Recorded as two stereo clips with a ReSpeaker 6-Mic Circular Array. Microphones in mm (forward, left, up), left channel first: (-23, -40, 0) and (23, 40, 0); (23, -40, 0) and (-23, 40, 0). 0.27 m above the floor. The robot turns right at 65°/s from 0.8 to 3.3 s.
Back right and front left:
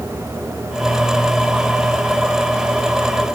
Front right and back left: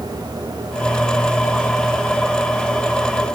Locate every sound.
Only background noise.